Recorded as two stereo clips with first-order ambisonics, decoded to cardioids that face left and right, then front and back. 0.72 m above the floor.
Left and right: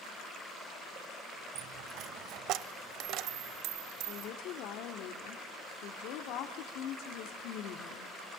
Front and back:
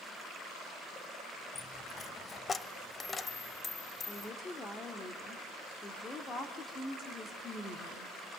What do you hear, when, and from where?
1.6 s a dropped coin: 70° right, 0.7 m
4.1 s a woman speaking: 70° left, 1.9 m